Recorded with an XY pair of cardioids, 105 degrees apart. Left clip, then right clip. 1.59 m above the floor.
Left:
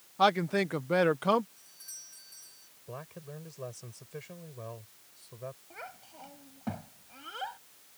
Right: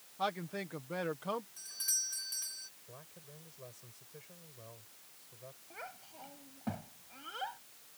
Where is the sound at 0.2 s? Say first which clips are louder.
Left 11 dB; 70° left.